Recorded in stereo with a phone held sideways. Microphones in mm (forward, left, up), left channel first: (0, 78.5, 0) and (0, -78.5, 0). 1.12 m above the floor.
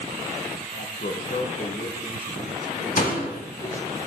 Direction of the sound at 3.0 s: 60° left (ahead or behind).